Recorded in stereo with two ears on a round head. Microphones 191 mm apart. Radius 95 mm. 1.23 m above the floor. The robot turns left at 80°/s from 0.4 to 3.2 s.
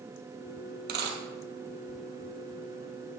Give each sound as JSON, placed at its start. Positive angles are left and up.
{"t": 0.9, "sound": "a dropped coin", "side_deg": -45, "distance_m": 2.0}